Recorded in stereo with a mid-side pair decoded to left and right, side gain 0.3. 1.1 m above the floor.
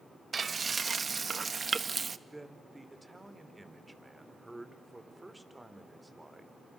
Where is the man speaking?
15° right, 3.5 m.